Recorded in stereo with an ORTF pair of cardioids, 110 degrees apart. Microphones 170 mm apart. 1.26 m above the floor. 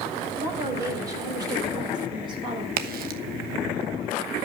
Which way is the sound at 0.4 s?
15° right.